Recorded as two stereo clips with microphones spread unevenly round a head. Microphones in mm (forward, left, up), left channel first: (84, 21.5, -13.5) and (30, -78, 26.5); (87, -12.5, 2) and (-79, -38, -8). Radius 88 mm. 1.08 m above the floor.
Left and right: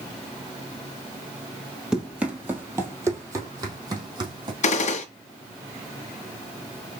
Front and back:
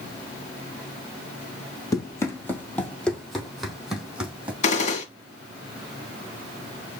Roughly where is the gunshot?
Ahead left.